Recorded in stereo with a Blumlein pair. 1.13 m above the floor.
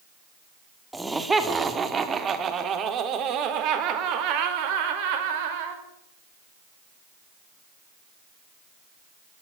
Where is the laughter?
5° right, 2.5 m; by 5.8 s 50° right, 4.5 m.